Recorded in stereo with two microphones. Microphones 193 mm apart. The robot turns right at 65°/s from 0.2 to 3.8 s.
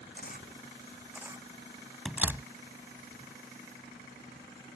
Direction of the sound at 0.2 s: 60° left (ahead or behind).